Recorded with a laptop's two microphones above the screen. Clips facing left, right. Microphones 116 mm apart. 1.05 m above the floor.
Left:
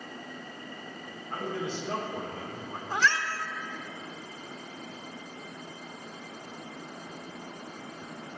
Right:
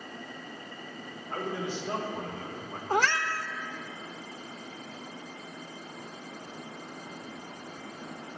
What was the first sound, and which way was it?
A man speaking, 15° right (ahead or behind).